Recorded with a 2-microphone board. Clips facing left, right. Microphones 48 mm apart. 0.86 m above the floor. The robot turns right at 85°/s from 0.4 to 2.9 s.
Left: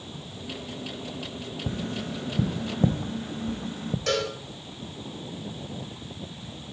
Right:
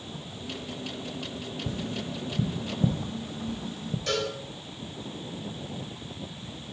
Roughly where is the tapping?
Left.